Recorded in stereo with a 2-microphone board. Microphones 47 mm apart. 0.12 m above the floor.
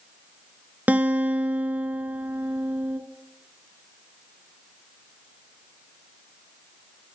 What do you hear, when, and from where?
0.9 s a guitar: 40° right (ahead or behind), 0.5 m